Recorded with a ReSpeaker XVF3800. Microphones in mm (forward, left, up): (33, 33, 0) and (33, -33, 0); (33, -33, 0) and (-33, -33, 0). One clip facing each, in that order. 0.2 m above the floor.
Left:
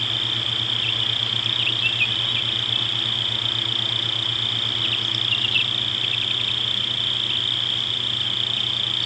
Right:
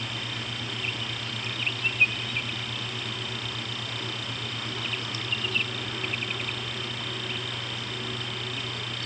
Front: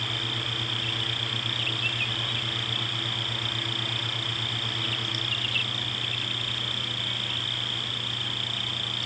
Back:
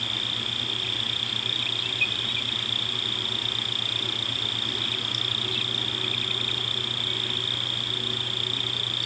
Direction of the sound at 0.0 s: 145° right.